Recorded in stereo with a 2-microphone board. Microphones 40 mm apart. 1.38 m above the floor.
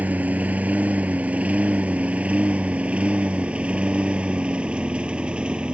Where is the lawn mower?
40° right (ahead or behind); by 5.7 s 25° right (ahead or behind).